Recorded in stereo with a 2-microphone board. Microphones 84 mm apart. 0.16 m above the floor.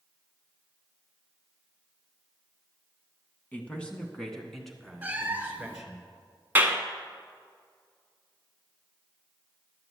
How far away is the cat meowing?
About 0.7 m.